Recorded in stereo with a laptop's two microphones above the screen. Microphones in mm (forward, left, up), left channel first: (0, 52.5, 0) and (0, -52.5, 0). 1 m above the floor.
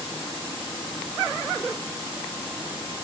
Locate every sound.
Only background noise.